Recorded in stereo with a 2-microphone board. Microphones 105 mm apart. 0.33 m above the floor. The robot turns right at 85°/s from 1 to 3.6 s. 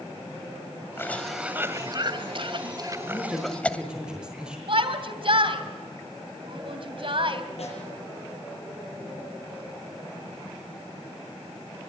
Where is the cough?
20° left (ahead or behind), 1.9 m; by 4.0 s 10° left (ahead or behind), 1.9 m.